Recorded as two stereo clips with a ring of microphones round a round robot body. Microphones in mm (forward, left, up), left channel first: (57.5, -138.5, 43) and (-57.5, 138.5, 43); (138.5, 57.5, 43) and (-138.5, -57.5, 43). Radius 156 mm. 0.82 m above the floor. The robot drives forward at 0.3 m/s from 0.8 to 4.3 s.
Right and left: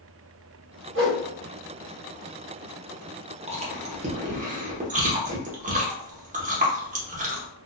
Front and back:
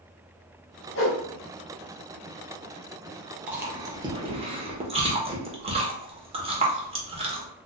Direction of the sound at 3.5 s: 125° left.